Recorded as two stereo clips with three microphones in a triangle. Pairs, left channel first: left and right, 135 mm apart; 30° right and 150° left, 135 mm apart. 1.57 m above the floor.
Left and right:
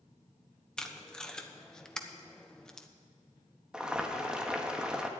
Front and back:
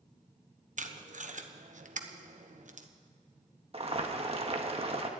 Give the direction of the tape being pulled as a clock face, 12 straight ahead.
6 o'clock.